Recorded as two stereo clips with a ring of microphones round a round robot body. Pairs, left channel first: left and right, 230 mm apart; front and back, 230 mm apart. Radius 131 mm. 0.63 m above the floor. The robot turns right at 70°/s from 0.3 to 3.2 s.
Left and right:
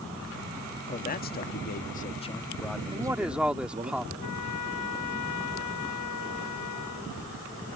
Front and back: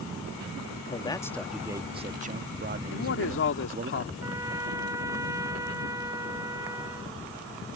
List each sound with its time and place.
0.9 s a man speaking: 45° left; by 3.9 s 150° right
2.9 s a man speaking: 25° right; by 4.1 s 5° right
4.2 s a trumpet: 105° left